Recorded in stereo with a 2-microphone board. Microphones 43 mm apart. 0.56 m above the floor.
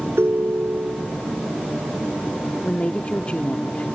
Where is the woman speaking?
35° left (ahead or behind).